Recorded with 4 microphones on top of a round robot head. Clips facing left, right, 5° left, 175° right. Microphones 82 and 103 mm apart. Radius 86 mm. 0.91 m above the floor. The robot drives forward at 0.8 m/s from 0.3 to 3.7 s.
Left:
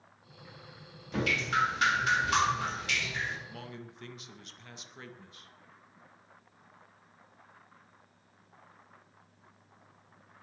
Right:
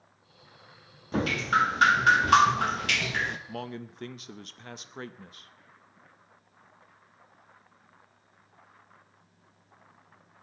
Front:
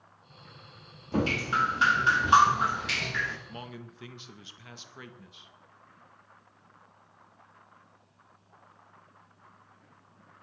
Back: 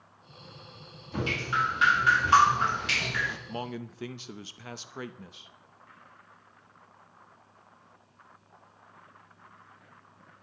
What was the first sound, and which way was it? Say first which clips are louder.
Dripping: right 5 dB, front 3 dB; 40° right.